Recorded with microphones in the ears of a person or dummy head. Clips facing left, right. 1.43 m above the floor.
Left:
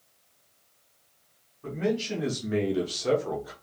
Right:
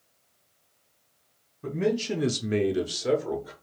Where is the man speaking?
45° right (ahead or behind), 0.8 m; by 3.5 s centre (ahead or behind), 1.1 m.